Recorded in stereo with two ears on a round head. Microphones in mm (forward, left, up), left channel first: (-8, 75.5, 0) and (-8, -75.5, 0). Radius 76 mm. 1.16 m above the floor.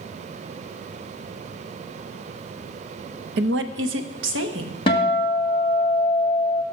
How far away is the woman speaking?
About 0.9 m.